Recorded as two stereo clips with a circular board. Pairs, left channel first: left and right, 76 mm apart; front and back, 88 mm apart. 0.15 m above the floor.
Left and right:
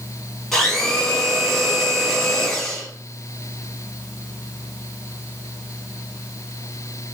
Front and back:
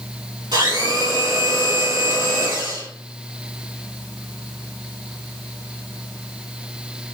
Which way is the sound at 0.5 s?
175° left.